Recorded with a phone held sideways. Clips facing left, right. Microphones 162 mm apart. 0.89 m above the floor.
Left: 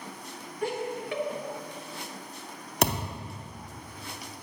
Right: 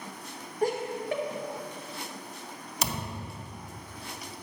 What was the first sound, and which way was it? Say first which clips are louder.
Laughter: right 3 dB; 40° right (ahead or behind).